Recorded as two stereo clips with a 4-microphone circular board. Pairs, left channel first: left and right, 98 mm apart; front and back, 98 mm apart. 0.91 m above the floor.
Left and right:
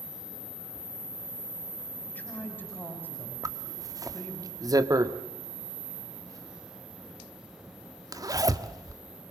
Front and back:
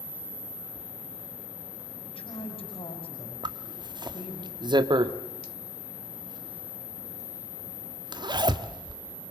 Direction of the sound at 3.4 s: 140° right.